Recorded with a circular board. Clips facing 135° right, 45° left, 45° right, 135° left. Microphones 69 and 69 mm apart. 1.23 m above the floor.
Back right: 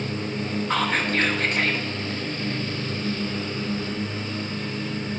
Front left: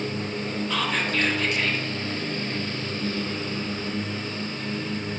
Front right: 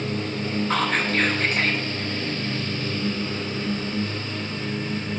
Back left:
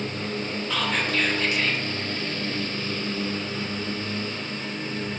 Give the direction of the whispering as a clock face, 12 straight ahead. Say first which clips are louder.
Back right 3 dB, front right 2 dB; 3 o'clock.